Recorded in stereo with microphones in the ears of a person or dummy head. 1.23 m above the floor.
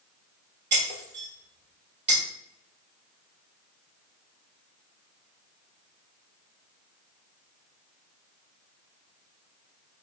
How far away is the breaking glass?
About 1.6 m.